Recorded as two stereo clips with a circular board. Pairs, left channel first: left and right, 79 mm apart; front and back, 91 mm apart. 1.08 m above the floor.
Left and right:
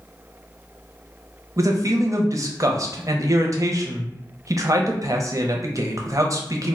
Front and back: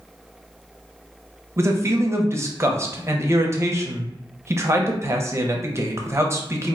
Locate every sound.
1.6 s a man speaking: 125° right, 0.6 m